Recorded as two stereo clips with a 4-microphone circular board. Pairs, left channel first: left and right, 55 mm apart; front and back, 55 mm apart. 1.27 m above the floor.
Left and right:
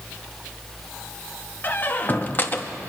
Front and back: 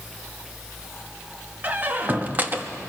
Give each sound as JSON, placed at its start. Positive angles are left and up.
{"t": 1.6, "sound": "a squeak", "azimuth_deg": 130, "distance_m": 0.8}